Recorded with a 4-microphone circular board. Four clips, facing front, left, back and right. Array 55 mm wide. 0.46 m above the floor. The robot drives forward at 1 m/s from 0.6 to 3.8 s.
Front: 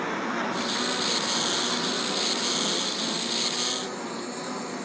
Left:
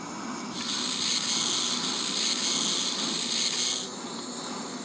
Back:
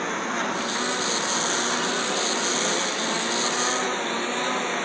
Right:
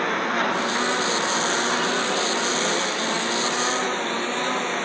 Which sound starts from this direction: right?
A lawn mower, at 0.0 s.